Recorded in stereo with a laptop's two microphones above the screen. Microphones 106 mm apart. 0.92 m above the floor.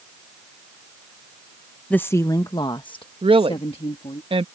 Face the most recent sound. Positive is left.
turn(degrees=-55)  # may be behind; listen again after turning